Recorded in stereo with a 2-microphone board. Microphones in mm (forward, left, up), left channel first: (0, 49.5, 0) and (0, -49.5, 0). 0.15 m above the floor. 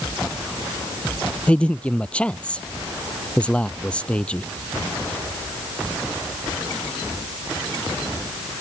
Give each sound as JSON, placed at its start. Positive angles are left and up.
{"t": 1.5, "sound": "a man speaking", "side_deg": 10}